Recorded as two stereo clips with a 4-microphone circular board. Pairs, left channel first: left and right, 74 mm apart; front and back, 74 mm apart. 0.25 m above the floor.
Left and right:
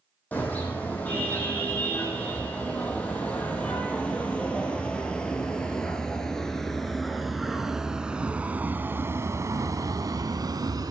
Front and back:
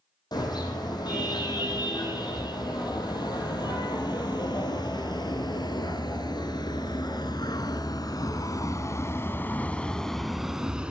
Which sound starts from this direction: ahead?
A car horn, at 0.3 s.